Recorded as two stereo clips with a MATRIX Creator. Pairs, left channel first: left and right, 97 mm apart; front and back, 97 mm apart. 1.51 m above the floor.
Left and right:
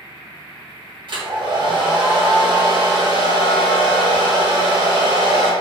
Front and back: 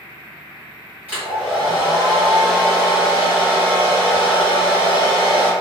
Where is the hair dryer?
110° right, 1.4 m.